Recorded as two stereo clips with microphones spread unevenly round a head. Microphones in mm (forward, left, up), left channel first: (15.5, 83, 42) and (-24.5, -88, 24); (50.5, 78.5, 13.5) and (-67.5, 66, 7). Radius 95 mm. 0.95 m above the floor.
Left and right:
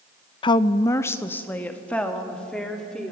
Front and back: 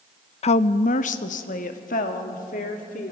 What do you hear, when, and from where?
0.4 s a woman speaking: 15° left, 0.5 m; by 3.1 s 10° right, 2.5 m